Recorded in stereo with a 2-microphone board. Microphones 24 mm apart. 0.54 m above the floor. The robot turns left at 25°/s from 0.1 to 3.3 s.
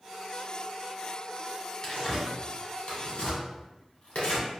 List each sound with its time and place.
1.8 s tearing paper: 35° left (ahead or behind), 1.2 m; by 4.5 s 65° left (ahead or behind), 1.2 m